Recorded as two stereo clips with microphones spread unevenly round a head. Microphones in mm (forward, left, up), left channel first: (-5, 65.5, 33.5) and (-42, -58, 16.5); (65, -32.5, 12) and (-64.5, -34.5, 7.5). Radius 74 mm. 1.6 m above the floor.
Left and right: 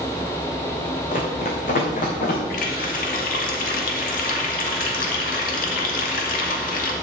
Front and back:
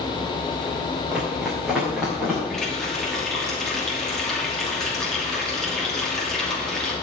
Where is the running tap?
85° left, 2.5 m.